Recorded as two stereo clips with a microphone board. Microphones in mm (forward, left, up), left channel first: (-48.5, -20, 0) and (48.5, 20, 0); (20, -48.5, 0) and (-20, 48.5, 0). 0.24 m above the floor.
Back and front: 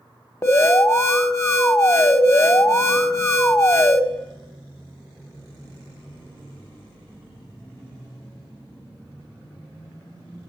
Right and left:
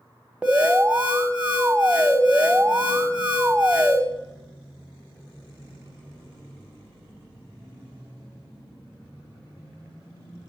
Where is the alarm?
Straight behind, 0.7 m.